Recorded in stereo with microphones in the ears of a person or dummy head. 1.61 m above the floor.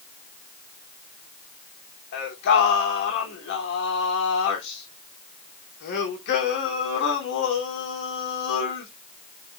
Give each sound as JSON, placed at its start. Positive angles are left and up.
{"t": 2.1, "sound": "singing", "side_deg": 55, "distance_m": 3.0}